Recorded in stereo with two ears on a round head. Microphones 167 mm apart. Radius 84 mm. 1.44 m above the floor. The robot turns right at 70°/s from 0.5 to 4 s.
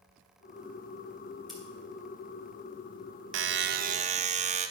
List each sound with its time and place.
1.5 s scissors: centre (ahead or behind), 2.5 m; by 1.6 s 10° left (ahead or behind), 2.5 m
3.3 s a buzzer: 85° right, 0.6 m; by 4.7 s 40° right, 0.6 m